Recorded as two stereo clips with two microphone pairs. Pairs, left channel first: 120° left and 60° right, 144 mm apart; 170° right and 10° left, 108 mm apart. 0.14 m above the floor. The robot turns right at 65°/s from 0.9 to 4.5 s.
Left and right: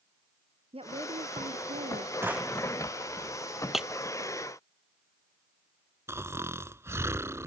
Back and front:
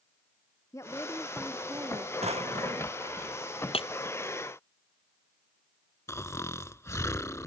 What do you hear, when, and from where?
0.7 s a woman speaking: 105° right; by 2.1 s 30° right
2.2 s a drawer: 10° left; by 3.0 s 60° left
3.7 s breaking glass: 150° right; by 3.9 s 140° right
6.1 s snoring: 120° right